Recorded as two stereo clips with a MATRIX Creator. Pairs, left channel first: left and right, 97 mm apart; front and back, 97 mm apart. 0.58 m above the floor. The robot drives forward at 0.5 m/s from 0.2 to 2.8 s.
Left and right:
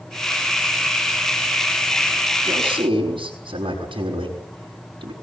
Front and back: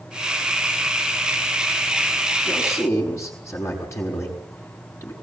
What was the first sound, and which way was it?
A man speaking, 60° right.